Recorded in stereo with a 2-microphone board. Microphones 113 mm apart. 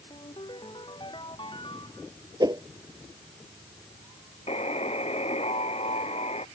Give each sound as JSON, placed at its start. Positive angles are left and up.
{"t": 0.1, "sound": "a ringtone", "side_deg": 45}
{"t": 2.4, "sound": "a whoosh", "side_deg": -35}
{"t": 4.5, "sound": "a buzzer", "side_deg": 65}